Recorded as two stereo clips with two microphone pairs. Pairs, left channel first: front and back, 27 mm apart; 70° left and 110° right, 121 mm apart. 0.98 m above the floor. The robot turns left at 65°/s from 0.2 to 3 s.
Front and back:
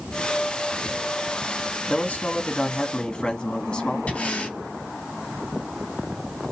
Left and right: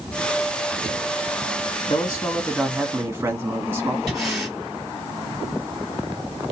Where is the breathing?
20° right, 4 m.